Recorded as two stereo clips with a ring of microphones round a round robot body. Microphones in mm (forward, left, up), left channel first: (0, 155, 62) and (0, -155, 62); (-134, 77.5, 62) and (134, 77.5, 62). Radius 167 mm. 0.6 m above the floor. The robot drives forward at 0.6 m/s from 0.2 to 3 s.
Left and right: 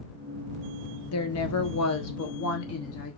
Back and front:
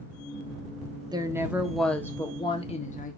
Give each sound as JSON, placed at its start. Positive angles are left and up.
{"t": 1.1, "sound": "a woman speaking", "azimuth_deg": 70, "distance_m": 1.5}